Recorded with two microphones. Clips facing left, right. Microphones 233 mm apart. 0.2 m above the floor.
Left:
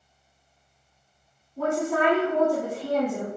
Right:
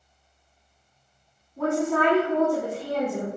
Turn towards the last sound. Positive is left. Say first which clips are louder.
# right 1 dB
turn(degrees=5)  # may be behind; listen again after turning